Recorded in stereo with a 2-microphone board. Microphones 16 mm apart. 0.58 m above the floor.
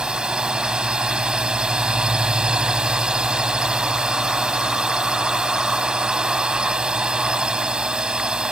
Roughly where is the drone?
Right.